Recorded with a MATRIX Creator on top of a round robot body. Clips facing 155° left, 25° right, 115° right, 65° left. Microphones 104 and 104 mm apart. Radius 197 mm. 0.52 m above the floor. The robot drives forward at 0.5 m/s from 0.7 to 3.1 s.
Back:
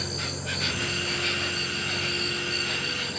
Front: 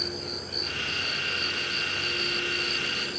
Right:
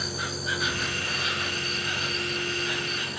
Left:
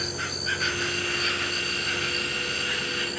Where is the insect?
170° left, 0.8 m; by 3.2 s 175° left, 1.9 m.